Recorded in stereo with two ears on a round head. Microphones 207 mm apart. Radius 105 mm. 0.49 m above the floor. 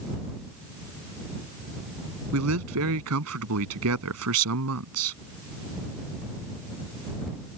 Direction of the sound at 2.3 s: 80° right.